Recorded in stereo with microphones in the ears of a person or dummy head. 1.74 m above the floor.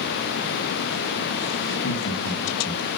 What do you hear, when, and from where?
1.7 s laughter: 70° left (ahead or behind), 3 m; by 2.9 s 50° left (ahead or behind), 3.5 m